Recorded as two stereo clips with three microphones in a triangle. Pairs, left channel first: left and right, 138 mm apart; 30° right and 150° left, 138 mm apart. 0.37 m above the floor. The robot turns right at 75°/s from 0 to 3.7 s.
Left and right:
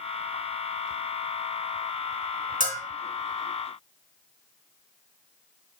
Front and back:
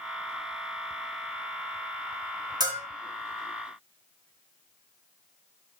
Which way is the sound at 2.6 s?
90° left.